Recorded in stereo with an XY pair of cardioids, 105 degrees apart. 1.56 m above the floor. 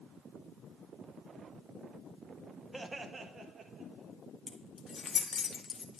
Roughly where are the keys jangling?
Ahead left.